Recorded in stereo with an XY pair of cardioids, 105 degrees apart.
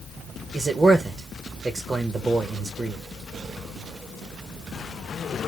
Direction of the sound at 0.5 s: 35° right.